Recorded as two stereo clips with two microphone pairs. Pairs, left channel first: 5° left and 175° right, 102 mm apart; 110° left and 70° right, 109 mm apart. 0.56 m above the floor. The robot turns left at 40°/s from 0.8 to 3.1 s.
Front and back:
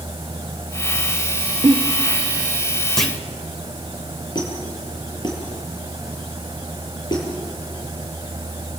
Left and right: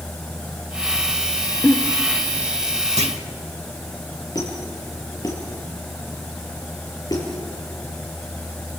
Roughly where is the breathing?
I don't hear breathing.